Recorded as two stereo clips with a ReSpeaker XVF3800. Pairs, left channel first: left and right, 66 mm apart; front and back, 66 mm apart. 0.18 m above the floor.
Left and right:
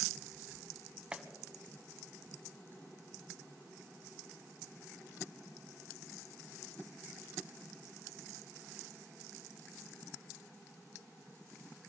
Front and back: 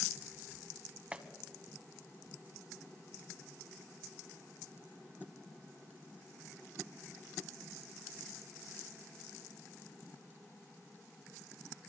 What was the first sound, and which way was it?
A clap, 135° right.